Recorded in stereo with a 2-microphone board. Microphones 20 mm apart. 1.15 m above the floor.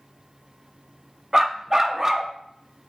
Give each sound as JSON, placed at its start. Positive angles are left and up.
{"t": 1.3, "sound": "a dog barking", "side_deg": -25, "distance_m": 0.6}